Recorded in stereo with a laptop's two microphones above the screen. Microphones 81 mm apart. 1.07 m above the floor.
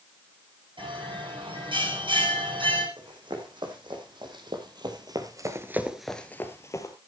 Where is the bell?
90° right, 8.5 m.